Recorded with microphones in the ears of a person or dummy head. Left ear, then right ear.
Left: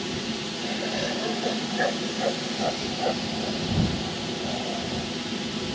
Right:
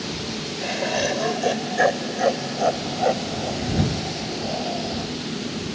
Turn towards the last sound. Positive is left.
turn(degrees=-15)  # may be behind; listen again after turning